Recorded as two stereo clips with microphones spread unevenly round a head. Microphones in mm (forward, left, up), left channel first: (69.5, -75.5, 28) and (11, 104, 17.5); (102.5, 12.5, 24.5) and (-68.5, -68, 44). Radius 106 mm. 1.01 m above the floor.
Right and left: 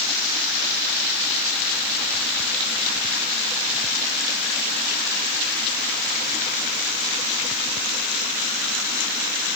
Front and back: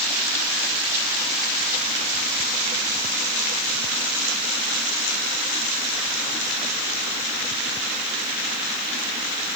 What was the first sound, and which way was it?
Only background noise.